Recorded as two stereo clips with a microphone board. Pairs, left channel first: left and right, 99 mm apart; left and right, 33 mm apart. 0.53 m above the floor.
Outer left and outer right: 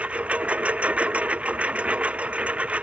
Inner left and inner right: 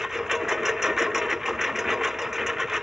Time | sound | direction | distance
0.0 | a lawn mower | 15° right (ahead or behind) | ?